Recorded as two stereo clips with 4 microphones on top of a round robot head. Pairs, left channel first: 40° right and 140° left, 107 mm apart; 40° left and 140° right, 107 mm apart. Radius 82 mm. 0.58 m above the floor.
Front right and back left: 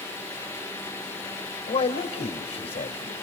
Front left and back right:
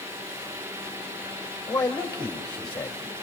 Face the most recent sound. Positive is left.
turn(degrees=-30)